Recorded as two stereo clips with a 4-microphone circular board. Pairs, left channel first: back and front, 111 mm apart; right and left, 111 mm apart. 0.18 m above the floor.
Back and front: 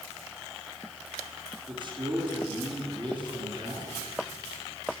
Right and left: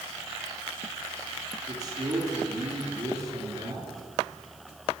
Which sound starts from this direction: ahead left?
A man speaking, at 1.7 s.